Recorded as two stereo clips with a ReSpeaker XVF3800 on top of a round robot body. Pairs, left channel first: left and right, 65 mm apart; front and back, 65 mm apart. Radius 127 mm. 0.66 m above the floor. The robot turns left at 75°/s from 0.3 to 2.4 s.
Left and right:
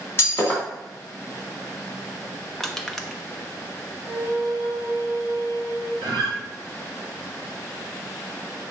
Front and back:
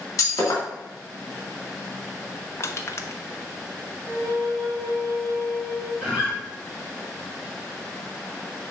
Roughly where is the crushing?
Ahead.